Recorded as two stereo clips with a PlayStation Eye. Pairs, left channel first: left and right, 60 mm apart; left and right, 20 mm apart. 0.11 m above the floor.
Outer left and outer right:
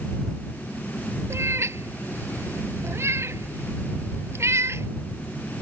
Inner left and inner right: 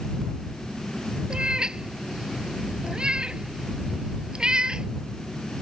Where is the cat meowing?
50° right (ahead or behind).